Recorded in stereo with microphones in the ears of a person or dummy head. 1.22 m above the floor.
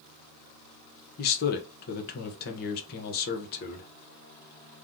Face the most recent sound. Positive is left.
turn(degrees=50)  # may be behind; listen again after turning